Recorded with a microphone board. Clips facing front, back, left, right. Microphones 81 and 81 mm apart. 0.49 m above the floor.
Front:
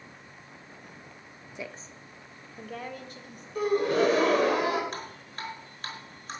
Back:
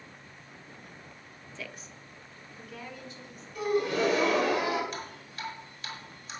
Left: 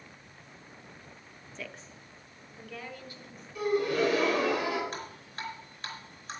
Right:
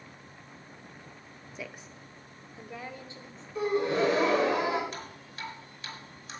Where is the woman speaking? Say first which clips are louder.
Front 4 dB, right 1 dB; 30° right, 0.7 m; by 3.5 s 25° right, 2.5 m.